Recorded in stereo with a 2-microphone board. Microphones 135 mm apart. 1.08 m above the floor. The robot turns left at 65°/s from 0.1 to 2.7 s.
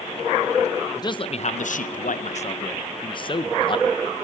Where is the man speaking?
155° left, 0.6 m; by 4.2 s 40° left, 0.6 m.